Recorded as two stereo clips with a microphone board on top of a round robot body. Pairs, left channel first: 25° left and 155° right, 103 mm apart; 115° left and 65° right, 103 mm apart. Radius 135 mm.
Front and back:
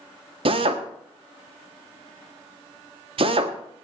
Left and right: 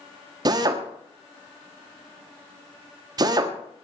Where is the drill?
120° right, 1.2 m.